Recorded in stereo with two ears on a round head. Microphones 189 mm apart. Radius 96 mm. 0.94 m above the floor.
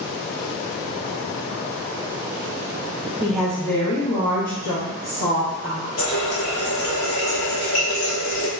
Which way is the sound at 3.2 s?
10° right (ahead or behind).